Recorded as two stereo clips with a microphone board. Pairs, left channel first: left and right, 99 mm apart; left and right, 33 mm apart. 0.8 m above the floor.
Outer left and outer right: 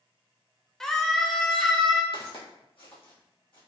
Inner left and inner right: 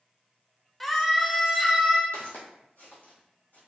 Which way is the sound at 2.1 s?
60° left (ahead or behind).